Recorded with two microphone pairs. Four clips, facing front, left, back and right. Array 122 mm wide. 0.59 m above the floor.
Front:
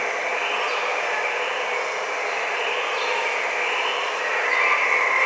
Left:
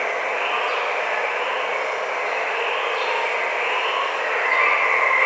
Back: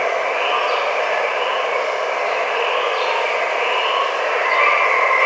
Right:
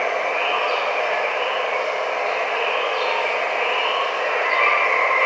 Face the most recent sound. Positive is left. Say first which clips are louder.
# right 2 dB, back 7 dB
turn(degrees=-175)